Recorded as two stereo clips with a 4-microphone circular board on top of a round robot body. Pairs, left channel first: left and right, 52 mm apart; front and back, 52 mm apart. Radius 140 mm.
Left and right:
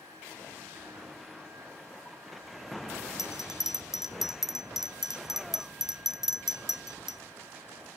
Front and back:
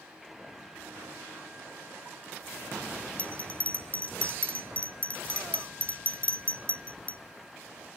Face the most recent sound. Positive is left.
turn(degrees=-20)